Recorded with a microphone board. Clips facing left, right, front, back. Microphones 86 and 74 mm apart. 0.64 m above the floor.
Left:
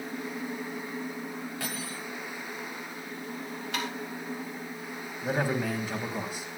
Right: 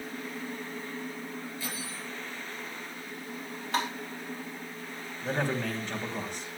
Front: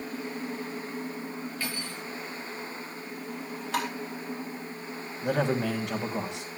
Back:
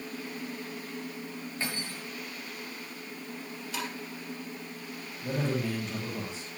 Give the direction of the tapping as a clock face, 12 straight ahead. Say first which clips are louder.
Right 4 dB, front 7 dB; 1 o'clock.